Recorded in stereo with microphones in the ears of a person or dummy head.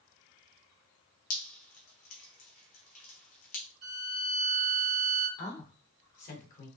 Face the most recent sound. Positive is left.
turn(degrees=40)  # may be behind; listen again after turning